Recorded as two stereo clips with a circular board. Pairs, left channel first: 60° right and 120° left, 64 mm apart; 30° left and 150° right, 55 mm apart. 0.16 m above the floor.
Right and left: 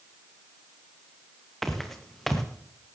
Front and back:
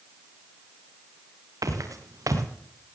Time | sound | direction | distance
1.6 | footsteps | 150° right | 2.5 m